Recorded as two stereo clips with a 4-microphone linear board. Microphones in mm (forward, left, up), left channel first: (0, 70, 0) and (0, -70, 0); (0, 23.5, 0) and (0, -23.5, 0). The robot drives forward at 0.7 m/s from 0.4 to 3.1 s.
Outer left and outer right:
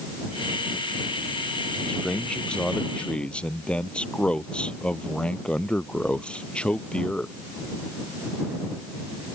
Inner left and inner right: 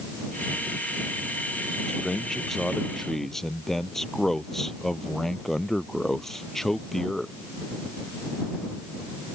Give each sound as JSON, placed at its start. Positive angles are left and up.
{"t": 1.9, "sound": "a man speaking", "side_deg": 5}